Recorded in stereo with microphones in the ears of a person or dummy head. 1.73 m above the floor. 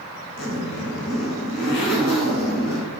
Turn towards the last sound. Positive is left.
turn(degrees=80)